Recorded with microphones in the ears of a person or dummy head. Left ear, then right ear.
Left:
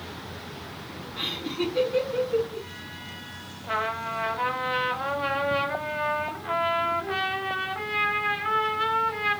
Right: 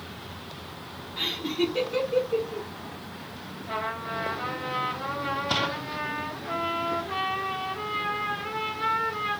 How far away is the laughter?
About 0.8 m.